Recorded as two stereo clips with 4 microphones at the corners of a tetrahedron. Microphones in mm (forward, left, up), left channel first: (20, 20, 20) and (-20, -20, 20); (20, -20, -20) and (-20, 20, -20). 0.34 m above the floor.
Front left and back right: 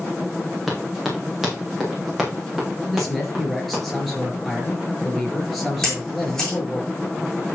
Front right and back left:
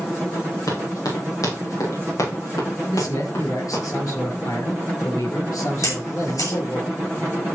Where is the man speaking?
40° right, 5 m.